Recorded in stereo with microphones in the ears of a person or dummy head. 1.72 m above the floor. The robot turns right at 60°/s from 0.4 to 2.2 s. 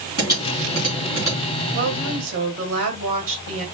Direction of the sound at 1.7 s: 65° right (ahead or behind).